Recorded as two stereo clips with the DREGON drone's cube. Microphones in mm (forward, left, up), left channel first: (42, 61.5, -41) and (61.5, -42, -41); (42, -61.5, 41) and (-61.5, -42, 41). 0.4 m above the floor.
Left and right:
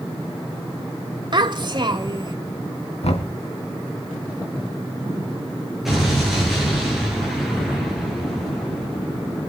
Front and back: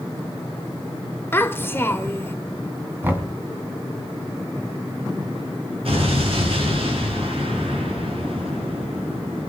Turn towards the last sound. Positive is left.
turn(degrees=-165)